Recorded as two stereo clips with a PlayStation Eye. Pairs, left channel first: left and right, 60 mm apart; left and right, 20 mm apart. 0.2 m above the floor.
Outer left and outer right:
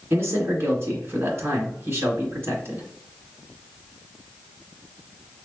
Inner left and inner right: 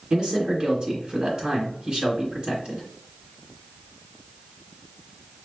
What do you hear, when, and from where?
0.1 s a man speaking: 40° right (ahead or behind), 2 m